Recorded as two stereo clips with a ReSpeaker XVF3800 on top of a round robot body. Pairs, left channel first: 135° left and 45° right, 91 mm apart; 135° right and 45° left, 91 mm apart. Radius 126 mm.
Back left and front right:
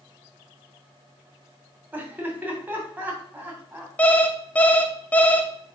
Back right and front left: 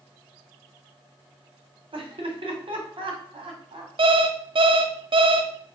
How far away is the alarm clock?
About 1.0 m.